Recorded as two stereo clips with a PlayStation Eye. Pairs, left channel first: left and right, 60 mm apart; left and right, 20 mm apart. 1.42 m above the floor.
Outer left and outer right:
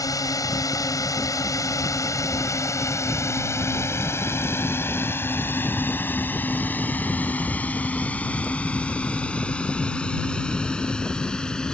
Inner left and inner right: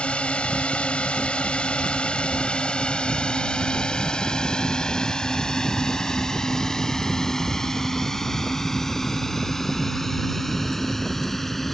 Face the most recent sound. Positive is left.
turn(degrees=10)  # may be behind; listen again after turning